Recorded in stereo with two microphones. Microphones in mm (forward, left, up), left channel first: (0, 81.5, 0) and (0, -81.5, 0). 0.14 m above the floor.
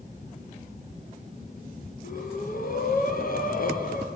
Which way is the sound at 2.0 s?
60° left (ahead or behind).